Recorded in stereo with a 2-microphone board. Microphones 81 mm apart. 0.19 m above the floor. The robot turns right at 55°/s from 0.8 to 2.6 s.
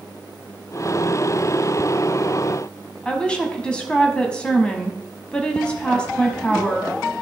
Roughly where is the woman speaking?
Centre.